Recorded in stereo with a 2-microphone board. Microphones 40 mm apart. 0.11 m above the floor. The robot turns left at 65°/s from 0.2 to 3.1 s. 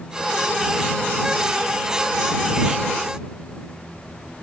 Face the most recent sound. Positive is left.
No sound to turn to.